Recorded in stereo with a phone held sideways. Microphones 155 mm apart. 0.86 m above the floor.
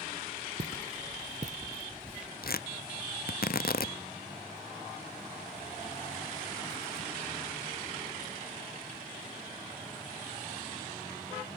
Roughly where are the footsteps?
Right.